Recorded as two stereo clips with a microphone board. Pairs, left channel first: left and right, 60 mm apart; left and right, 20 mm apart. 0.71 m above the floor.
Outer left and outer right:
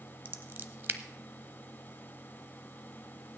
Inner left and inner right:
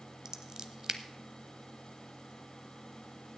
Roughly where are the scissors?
Right.